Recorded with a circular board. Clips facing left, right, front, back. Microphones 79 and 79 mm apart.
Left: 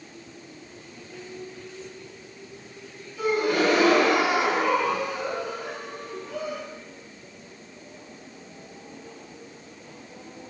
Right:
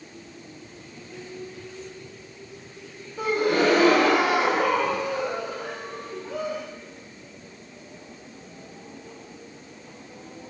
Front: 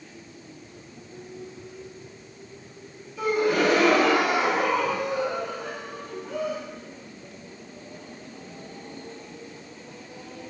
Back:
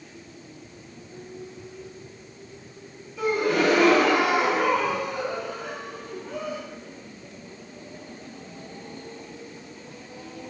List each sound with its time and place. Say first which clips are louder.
3.2 s a gasp: right 1 dB, even; 85° right, 0.7 m